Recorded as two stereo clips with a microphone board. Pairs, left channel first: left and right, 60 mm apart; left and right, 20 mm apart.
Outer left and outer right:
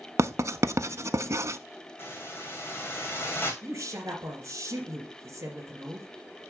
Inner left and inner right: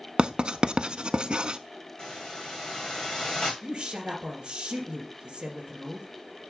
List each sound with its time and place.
0.2 s writing: 55° right (ahead or behind), 0.5 m
2.0 s a hiss: 40° left (ahead or behind), 2 m
3.6 s a woman speaking: 45° right (ahead or behind), 2.5 m